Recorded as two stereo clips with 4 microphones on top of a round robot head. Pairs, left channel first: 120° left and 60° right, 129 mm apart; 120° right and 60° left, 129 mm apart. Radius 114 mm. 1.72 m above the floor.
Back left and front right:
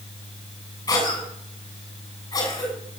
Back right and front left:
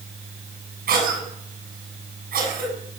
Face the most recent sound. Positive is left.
turn(degrees=55)